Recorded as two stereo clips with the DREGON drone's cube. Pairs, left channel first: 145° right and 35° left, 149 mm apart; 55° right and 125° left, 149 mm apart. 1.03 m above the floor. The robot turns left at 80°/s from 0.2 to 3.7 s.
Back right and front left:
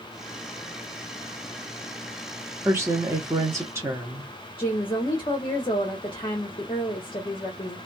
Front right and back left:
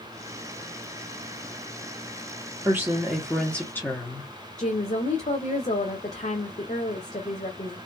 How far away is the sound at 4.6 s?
About 0.6 m.